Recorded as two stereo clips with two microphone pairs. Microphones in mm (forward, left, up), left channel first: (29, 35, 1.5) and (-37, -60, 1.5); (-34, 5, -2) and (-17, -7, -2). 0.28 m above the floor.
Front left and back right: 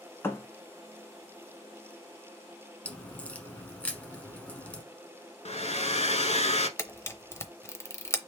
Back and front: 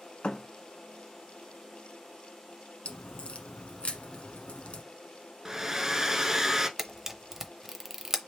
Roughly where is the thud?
Behind left.